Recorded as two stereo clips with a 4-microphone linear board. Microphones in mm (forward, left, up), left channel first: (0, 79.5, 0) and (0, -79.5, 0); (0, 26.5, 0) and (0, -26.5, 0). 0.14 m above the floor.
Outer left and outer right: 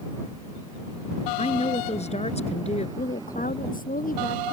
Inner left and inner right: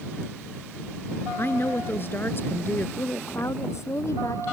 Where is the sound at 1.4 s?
45° left (ahead or behind).